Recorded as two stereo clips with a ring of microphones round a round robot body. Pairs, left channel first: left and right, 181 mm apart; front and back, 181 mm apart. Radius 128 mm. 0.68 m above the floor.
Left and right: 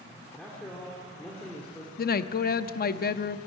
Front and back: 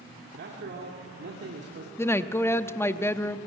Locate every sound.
0.3 s a man speaking: 175° left, 2 m
2.0 s a woman speaking: 75° left, 0.7 m